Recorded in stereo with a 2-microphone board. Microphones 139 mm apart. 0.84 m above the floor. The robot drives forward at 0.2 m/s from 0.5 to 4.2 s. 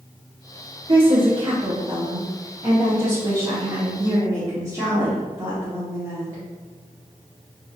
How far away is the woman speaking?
About 0.6 m.